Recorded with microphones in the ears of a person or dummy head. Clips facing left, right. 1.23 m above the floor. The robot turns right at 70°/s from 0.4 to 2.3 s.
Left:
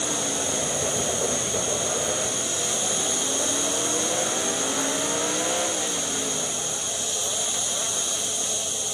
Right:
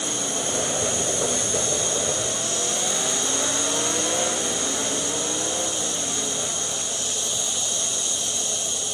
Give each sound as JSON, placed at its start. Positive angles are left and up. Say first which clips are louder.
{"t": 0.0, "sound": "an insect", "louder": "even", "azimuth_deg": -140, "distance_m": 4.5}